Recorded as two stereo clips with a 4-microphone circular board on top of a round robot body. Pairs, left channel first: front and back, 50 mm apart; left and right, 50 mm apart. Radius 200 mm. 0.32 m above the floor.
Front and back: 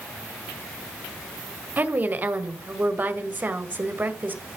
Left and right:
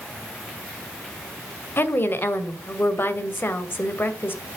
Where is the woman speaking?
135° left, 2 m.